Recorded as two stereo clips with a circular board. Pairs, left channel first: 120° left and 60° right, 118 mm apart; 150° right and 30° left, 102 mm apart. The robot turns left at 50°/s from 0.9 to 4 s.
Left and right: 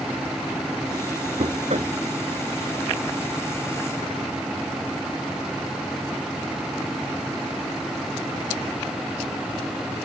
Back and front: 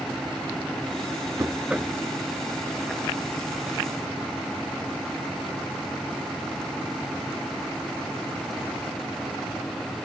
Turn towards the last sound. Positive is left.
turn(degrees=-165)